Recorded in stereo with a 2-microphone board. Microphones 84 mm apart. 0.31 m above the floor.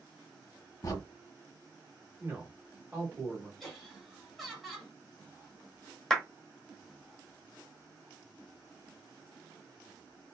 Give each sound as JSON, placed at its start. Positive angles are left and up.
{"t": 0.8, "sound": "a crack", "side_deg": 40, "distance_m": 1.0}
{"t": 2.2, "sound": "a man speaking", "side_deg": -20, "distance_m": 1.1}
{"t": 3.6, "sound": "laughter", "side_deg": 5, "distance_m": 1.7}
{"t": 6.1, "sound": "a clap", "side_deg": 5, "distance_m": 0.8}